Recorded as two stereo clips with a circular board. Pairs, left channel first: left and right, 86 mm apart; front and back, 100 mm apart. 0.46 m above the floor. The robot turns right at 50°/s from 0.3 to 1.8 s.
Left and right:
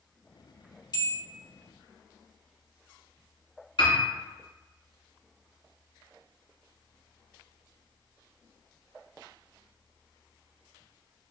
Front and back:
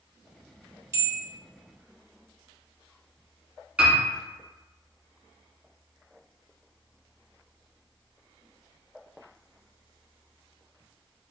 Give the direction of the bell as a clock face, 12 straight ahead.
8 o'clock.